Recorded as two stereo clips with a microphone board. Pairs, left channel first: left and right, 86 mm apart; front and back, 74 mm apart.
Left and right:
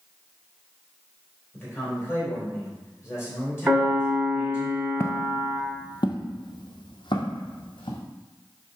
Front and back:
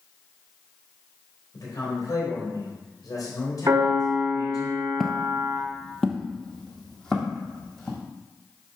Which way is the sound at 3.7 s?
160° right.